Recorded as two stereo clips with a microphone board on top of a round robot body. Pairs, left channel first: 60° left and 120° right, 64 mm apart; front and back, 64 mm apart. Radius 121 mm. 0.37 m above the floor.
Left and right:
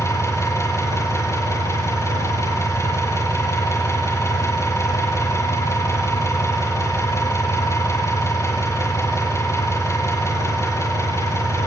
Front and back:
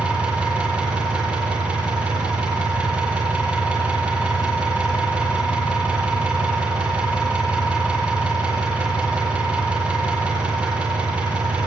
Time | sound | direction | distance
0.0 | an engine running | 110° left | 9 m